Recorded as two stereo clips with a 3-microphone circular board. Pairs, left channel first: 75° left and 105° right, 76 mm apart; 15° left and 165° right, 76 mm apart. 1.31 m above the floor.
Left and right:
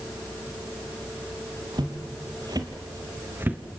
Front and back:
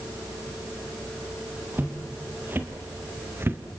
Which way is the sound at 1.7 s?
100° right.